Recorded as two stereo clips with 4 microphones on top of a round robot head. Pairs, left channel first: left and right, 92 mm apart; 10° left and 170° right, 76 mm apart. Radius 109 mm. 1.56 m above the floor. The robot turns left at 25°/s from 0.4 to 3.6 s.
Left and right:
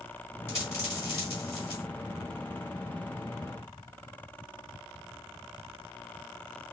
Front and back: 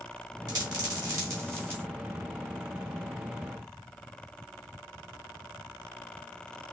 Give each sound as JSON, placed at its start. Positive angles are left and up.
{"t": 0.5, "sound": "a dropped coin", "azimuth_deg": 160, "distance_m": 1.9}